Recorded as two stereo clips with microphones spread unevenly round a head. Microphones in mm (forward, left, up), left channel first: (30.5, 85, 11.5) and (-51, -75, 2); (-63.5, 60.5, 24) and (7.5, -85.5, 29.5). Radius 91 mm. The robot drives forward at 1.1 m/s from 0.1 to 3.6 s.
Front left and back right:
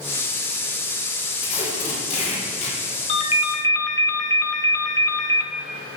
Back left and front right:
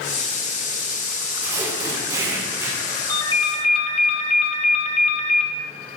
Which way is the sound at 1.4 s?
5° left.